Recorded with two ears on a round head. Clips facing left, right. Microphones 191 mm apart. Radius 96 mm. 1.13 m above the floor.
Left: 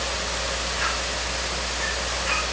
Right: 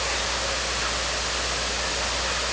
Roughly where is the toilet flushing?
No toilet flushing in this recording.